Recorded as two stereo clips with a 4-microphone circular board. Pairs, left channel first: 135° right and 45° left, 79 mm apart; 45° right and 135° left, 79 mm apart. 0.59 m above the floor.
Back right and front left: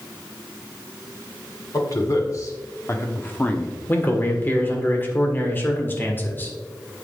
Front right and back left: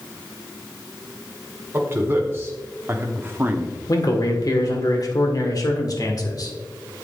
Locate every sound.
1.7 s a man speaking: 170° right, 1.9 m; by 3.8 s 155° left, 0.9 m
3.9 s a man speaking: 75° right, 1.7 m